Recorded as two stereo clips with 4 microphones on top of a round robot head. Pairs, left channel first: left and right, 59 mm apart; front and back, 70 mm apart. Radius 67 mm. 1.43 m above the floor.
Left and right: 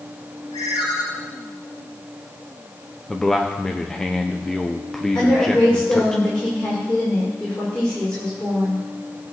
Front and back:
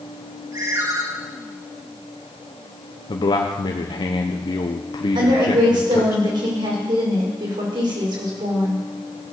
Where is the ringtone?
135° left, 3.5 m.